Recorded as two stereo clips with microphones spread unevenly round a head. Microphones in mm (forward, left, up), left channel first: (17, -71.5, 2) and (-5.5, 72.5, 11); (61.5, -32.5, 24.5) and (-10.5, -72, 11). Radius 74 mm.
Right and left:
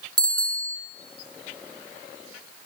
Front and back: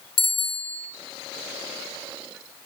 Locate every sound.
0.2 s a bicycle bell: 35° left, 3 m